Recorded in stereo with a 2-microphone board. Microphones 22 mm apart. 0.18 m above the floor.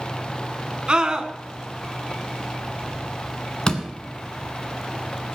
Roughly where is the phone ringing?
No phone ringing in this recording.